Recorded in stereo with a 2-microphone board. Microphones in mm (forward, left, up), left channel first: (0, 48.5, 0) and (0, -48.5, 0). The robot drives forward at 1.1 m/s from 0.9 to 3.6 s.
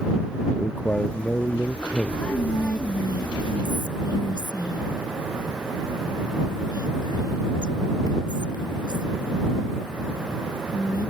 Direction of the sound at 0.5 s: 15° left (ahead or behind).